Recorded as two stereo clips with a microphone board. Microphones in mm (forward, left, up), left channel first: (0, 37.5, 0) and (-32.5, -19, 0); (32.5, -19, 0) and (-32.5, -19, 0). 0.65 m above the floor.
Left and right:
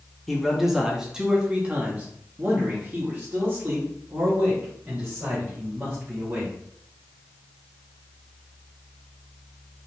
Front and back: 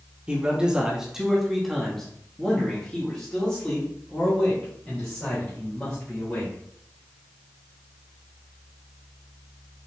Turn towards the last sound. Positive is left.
turn(degrees=-65)